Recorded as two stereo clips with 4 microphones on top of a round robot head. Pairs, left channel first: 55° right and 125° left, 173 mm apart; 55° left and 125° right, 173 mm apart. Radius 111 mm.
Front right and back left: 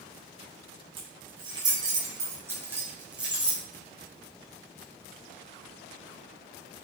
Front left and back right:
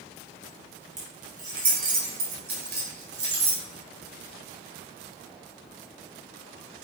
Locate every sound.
1.0 s keys jangling: 170° right, 5.5 m; by 3.6 s 145° right, 5 m